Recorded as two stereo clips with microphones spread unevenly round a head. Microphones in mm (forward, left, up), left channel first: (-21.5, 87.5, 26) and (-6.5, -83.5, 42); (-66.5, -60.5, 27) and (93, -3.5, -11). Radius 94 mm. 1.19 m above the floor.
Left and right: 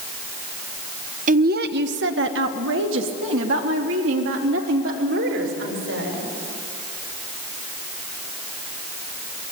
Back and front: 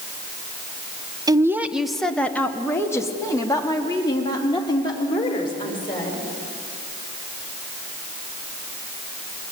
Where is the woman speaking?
40° right, 0.9 m; by 6.2 s 95° right, 5 m.